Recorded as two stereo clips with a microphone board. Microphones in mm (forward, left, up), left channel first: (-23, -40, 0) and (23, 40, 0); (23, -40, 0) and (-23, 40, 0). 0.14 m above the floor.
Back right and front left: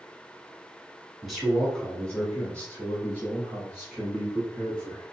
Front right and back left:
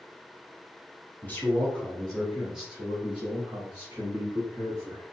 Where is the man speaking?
35° right, 1.4 m; by 5.0 s 175° left, 2.5 m.